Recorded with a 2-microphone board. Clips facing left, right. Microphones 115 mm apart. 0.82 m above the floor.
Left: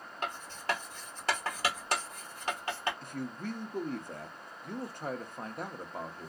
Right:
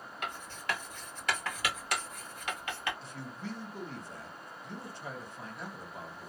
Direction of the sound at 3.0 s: 50° left (ahead or behind).